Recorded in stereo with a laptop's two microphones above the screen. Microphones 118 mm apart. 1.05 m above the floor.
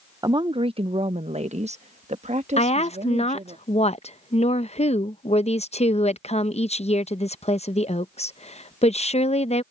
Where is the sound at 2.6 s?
65° left (ahead or behind).